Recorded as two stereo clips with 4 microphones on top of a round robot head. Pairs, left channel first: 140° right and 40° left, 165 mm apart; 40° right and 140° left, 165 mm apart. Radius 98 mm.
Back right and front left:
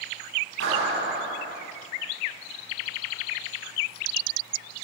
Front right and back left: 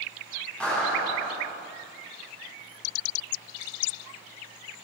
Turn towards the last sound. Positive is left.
turn(degrees=45)